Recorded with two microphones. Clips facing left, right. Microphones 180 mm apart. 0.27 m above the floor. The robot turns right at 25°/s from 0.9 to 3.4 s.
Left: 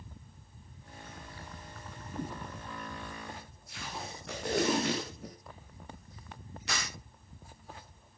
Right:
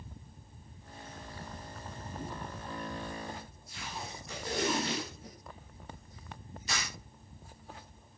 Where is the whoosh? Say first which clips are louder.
Left 4 dB; 55° left (ahead or behind), 3 m; by 2.4 s 60° left (ahead or behind), 3 m.